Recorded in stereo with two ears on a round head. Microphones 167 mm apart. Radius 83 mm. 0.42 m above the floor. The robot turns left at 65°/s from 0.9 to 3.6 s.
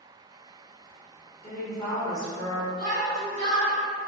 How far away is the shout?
About 1.6 m.